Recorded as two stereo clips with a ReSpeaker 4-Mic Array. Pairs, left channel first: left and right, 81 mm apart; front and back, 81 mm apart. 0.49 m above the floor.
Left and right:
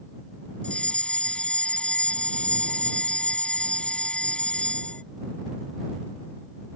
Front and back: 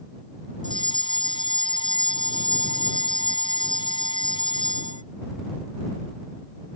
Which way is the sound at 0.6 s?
15° left.